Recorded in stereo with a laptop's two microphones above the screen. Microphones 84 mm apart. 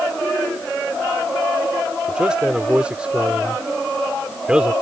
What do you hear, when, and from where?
2.1 s a man speaking: 10° right (ahead or behind)